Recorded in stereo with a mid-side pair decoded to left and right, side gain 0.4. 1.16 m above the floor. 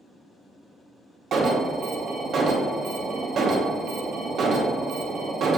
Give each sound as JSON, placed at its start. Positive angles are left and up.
{"t": 1.3, "sound": "an alarm", "azimuth_deg": -65, "distance_m": 0.7}